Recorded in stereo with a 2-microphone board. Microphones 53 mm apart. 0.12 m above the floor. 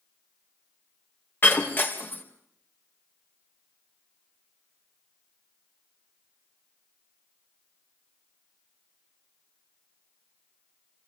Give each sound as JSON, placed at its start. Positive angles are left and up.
{"t": 1.4, "sound": "breaking glass", "side_deg": 40, "distance_m": 4.5}